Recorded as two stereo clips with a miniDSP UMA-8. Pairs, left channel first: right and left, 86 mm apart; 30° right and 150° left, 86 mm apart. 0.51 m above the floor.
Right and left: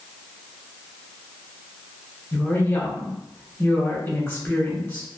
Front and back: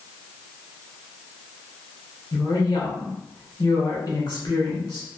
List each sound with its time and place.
2.3 s a woman speaking: 35° right, 1.4 m